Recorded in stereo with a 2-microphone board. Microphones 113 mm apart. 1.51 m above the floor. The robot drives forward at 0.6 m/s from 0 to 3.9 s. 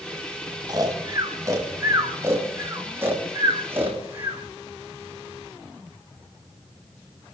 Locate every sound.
0.7 s snoring: 35° right (ahead or behind), 2.0 m; by 4.4 s 15° right (ahead or behind), 4 m